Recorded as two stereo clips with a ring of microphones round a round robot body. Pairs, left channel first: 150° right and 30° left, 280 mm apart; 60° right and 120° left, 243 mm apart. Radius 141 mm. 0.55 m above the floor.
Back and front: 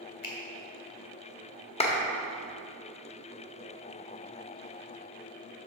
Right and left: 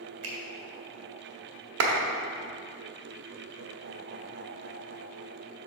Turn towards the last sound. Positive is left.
turn(degrees=145)